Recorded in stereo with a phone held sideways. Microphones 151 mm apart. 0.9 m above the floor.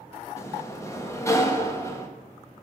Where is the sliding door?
20° left (ahead or behind), 1.4 m.